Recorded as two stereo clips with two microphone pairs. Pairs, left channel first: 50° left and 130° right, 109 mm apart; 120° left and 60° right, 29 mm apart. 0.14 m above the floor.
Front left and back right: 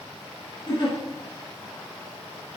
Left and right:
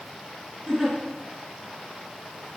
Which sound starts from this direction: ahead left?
A giggle, at 0.7 s.